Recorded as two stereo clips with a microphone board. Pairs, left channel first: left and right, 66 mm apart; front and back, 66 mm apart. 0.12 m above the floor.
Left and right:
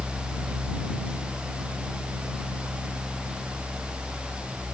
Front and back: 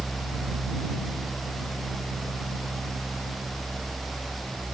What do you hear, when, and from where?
Only background noise.